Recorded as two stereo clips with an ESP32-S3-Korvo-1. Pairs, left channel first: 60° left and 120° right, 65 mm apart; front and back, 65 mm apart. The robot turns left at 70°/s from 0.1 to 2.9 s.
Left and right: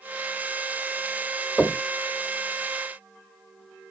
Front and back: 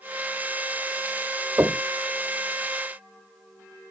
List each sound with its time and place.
1.6 s knocking: 135° left, 1.7 m; by 1.8 s 120° left, 1.7 m